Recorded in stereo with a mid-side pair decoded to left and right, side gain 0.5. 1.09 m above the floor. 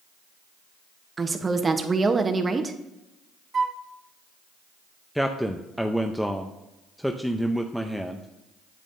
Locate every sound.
1.2 s a woman speaking: 30° right, 1.0 m
3.5 s a flute: 40° right, 0.5 m
5.2 s a man speaking: straight ahead, 0.6 m